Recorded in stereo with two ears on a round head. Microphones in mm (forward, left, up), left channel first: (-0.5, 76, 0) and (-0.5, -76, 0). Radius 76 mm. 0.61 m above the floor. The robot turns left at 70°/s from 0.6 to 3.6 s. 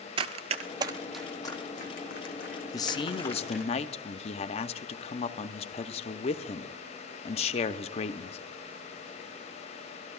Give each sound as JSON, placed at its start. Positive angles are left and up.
{"t": 0.2, "sound": "running footsteps", "side_deg": -35, "distance_m": 0.6}
{"t": 2.7, "sound": "a man speaking", "azimuth_deg": 145, "distance_m": 0.6}